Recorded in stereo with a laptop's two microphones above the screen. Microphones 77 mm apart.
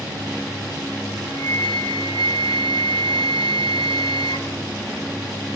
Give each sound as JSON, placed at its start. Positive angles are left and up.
{"t": 1.3, "sound": "a flute", "side_deg": 75, "distance_m": 0.7}